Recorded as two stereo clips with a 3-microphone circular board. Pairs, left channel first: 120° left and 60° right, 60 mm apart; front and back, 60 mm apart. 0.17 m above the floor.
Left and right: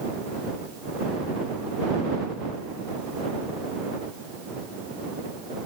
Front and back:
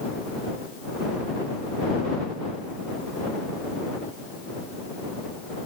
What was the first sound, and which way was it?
Only background noise.